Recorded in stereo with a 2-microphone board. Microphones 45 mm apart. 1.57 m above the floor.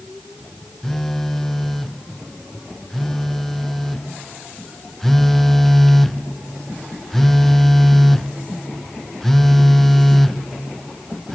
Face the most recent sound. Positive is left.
turn(degrees=10)  # may be behind; listen again after turning